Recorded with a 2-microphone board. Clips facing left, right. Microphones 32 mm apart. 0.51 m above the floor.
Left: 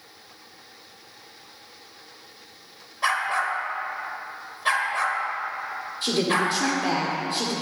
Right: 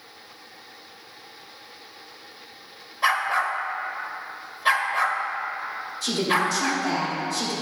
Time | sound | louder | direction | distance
3.0 | a dog barking | right 2 dB | 10° right (ahead or behind) | 0.6 m
6.0 | a woman speaking | even | 40° left (ahead or behind) | 1.4 m